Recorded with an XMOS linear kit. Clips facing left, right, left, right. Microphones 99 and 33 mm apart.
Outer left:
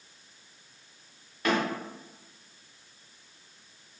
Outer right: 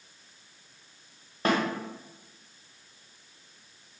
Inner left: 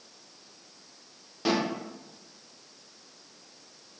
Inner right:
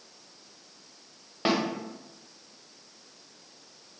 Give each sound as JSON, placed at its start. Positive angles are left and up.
{"t": 1.4, "sound": "a snare drum", "side_deg": -35, "distance_m": 0.7}